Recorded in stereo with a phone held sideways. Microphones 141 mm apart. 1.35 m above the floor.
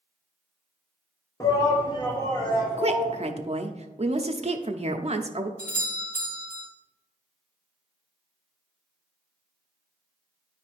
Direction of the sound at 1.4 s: 25° left (ahead or behind).